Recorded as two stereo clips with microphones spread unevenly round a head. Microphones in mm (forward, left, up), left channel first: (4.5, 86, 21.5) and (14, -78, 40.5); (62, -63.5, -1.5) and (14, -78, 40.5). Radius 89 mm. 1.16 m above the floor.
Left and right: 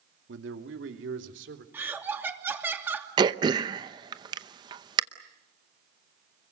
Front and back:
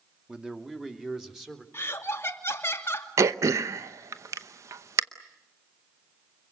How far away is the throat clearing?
About 0.8 m.